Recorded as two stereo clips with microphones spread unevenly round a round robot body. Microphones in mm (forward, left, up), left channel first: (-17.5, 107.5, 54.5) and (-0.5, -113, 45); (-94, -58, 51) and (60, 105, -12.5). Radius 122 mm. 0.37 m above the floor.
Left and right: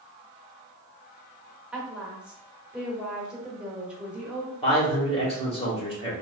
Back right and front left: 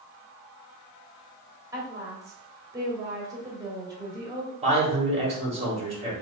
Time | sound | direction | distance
1.7 | a woman speaking | 5° right | 1.3 m
4.6 | a man speaking | 40° left | 1.8 m